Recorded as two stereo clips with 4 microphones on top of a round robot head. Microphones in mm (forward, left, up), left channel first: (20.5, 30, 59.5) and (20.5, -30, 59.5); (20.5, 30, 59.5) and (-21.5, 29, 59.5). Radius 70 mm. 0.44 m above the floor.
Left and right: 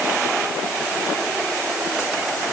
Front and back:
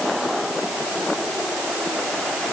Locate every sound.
Only background noise.